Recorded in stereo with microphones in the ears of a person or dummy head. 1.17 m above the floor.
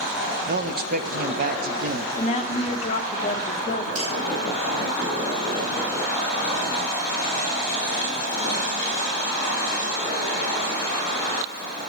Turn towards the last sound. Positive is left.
turn(degrees=-45)  # may be behind; listen again after turning